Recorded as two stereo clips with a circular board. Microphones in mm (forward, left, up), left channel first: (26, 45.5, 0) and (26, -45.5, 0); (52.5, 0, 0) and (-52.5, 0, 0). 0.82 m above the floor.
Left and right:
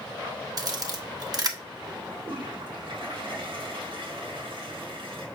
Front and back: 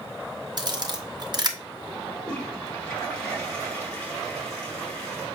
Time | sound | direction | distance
0.6 | a camera shutter | 130° right | 1.1 m
2.1 | a toilet flushing | 80° right | 3 m